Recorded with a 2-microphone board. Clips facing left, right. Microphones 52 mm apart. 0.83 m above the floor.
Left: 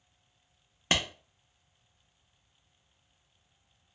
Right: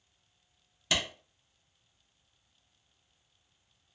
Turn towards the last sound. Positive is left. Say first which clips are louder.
# left 2 dB
turn(degrees=40)  # may be behind; listen again after turning